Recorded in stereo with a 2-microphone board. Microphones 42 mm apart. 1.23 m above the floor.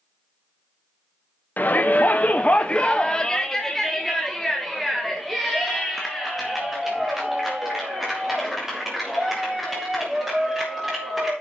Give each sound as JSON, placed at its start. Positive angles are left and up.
{"t": 1.6, "sound": "a shout", "side_deg": 45, "distance_m": 0.7}